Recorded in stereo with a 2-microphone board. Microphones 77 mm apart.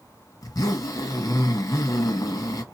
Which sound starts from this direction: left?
A zipper, at 0.4 s.